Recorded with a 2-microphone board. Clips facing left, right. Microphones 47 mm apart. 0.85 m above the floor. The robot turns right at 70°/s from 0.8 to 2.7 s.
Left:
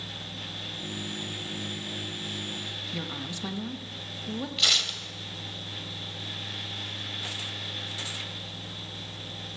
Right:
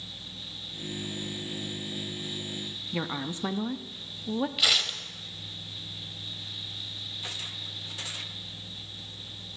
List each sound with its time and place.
2.9 s a woman speaking: 25° right (ahead or behind), 0.6 m
4.6 s tearing paper: 10° right (ahead or behind), 0.7 m